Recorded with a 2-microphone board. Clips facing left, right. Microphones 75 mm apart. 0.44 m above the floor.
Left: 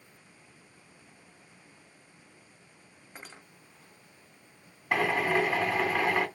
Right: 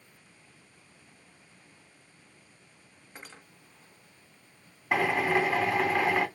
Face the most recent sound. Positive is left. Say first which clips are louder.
# right 1 dB
turn(degrees=-5)  # may be behind; listen again after turning